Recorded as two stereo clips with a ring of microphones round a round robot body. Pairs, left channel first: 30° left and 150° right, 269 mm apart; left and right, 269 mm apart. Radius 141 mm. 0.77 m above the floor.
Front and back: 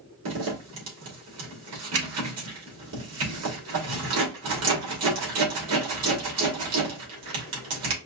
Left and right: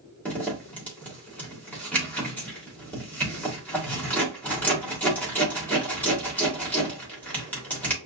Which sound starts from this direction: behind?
A zipper, at 0.2 s.